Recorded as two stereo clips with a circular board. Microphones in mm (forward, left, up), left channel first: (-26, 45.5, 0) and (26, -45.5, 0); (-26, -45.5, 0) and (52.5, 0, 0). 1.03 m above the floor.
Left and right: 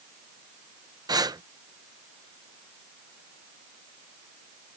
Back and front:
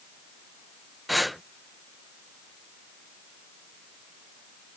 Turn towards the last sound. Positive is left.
turn(degrees=-60)